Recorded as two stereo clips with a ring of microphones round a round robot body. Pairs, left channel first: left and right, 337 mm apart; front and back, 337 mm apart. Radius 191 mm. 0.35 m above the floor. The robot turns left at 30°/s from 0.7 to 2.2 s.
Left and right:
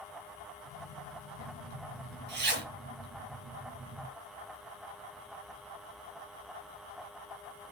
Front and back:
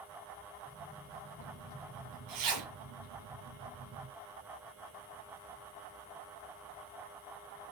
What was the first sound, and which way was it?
A zipper, 125° right.